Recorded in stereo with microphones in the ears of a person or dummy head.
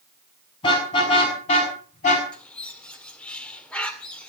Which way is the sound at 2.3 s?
10° left (ahead or behind).